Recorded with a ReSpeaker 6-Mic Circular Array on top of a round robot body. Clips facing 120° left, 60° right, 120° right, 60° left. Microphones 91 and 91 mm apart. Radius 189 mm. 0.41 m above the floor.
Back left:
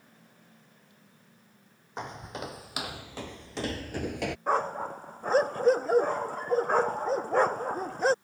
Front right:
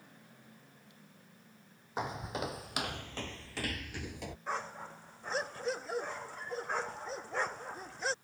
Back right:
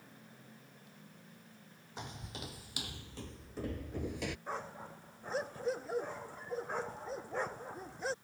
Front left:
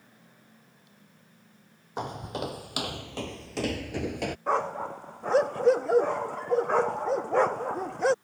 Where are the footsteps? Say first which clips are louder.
Front right 1 dB, front left 14 dB; 25° left; by 4.4 s 105° left.